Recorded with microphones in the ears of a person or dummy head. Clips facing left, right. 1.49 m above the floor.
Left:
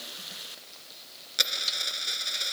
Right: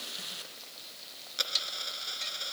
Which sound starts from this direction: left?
A dropped coin, at 1.4 s.